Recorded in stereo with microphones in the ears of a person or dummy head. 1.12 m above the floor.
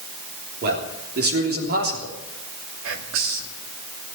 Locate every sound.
0.6 s a man speaking: 55° right (ahead or behind), 3.5 m
2.8 s whispering: 85° right, 2 m